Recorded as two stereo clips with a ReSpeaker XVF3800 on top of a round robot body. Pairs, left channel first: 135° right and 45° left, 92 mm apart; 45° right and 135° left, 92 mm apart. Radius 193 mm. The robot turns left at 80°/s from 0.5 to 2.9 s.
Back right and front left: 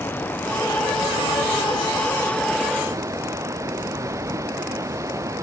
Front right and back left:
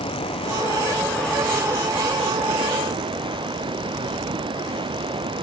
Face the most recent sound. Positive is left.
turn(degrees=100)